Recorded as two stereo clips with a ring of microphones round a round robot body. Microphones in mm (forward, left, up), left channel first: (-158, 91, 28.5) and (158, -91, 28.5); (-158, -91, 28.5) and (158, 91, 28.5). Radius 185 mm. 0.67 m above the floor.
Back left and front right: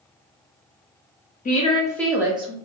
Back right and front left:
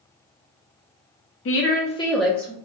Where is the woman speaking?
160° right, 0.8 m; by 2.5 s 10° right, 0.7 m.